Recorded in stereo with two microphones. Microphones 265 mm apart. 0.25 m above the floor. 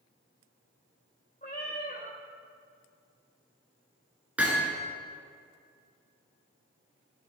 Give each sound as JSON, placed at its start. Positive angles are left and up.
{"t": 1.4, "sound": "a cat meowing", "side_deg": 30, "distance_m": 2.0}
{"t": 4.4, "sound": "hammering", "side_deg": -5, "distance_m": 2.0}